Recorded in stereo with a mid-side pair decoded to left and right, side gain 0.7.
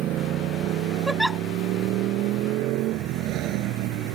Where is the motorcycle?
50° right; by 4.2 s 60° right.